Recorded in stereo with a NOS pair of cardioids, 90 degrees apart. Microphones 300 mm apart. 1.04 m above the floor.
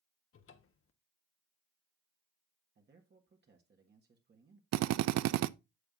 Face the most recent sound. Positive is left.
turn(degrees=-65)